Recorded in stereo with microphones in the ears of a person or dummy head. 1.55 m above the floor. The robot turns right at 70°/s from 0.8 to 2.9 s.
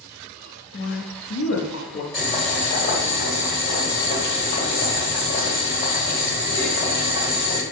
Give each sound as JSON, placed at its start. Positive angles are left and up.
{"t": 0.7, "sound": "a woman speaking", "azimuth_deg": 40, "distance_m": 0.6}
{"t": 2.1, "sound": "boiling", "azimuth_deg": 5, "distance_m": 1.5}